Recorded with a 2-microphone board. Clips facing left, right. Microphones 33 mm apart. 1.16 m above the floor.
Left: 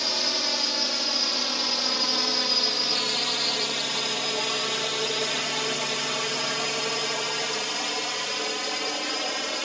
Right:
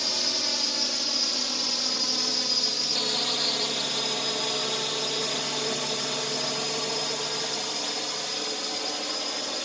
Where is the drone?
20° left (ahead or behind); by 9.7 s 50° left (ahead or behind).